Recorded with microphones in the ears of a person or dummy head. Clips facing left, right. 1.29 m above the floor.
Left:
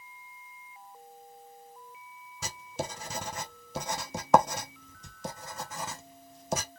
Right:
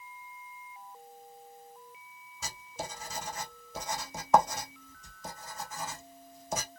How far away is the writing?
About 0.7 m.